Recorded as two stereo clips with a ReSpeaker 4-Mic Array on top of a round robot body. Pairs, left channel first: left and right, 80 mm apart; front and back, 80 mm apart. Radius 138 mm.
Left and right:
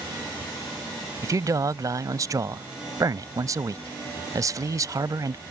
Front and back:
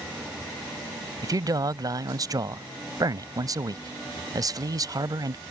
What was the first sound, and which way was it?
A man speaking, 135° right.